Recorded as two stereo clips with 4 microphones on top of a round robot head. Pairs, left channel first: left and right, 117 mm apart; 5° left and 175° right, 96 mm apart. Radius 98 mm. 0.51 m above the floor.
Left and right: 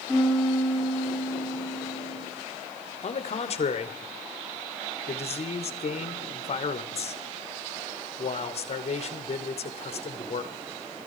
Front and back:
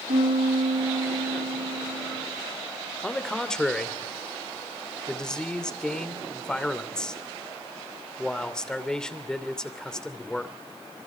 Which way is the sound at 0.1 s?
175° left.